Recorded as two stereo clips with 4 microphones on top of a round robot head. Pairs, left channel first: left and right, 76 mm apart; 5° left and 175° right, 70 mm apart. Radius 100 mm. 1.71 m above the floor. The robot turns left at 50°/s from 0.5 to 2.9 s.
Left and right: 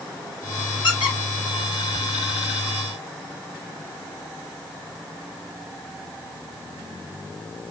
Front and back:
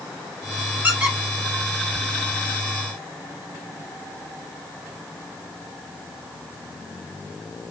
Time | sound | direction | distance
0.8 | a squeak | 120° left | 5 m